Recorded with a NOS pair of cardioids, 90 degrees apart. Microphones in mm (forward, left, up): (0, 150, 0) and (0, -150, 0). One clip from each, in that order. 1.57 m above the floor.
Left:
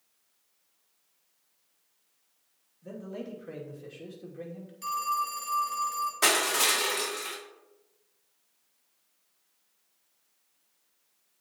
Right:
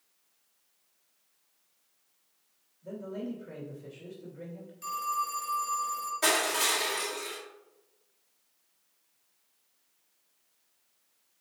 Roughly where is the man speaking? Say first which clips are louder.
Right 1 dB; ahead left.